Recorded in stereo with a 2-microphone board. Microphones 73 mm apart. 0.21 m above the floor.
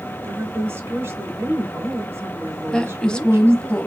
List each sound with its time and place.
0.2 s a woman speaking: 30° right (ahead or behind), 1.5 m
2.7 s a woman speaking: 10° left (ahead or behind), 1.0 m